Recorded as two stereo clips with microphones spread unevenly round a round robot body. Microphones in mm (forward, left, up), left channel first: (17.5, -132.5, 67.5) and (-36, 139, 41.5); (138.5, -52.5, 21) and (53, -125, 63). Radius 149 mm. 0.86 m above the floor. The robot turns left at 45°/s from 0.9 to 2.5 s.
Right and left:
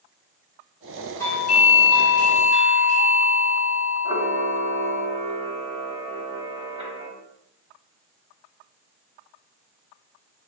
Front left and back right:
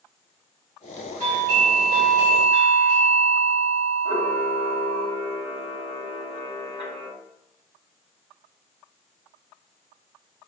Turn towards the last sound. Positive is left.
turn(degrees=165)